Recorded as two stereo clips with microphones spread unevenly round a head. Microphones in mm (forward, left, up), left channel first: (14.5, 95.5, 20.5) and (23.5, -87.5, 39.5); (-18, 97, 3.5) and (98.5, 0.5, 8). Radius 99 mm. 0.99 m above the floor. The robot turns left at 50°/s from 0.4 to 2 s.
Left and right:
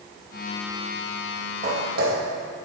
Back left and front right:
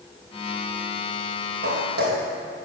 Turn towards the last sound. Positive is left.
turn(degrees=-60)